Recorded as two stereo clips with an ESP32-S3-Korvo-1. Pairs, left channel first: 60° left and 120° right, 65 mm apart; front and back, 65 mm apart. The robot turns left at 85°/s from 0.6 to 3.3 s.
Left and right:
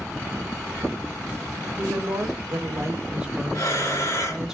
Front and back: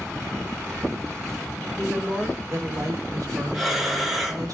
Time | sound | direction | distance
1.8 | a woman speaking | 70° right | 1.1 m
3.5 | breathing | 90° left | 1.1 m